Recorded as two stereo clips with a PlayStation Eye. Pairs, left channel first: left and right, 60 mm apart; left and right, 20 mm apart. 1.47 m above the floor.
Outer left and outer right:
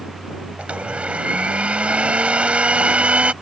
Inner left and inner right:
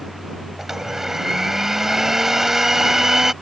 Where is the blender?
20° right (ahead or behind).